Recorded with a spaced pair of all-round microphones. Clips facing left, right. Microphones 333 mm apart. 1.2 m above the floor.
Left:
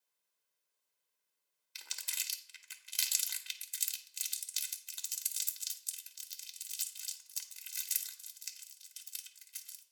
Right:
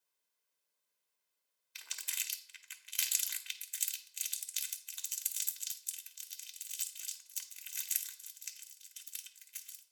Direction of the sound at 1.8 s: 55° left (ahead or behind).